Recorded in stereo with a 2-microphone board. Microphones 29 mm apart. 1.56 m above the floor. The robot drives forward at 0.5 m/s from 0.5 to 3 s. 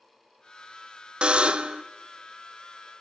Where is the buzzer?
35° right (ahead or behind), 0.5 m.